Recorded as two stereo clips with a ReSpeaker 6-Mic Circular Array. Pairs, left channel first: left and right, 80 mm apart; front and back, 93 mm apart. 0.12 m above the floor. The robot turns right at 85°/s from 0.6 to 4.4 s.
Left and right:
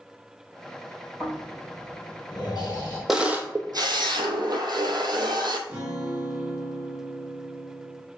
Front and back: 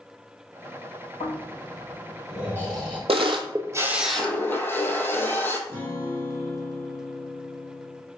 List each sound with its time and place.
1.2 s snoring: 5° left, 2 m; by 3.0 s 155° left, 2 m
3.1 s a camera shutter: 175° right, 0.6 m; by 5.6 s 65° right, 0.6 m
5.7 s a guitar: 35° right, 1.6 m